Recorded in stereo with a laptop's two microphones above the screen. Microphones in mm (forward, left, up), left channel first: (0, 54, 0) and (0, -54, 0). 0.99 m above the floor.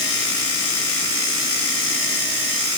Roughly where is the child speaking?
I don't hear a child speaking.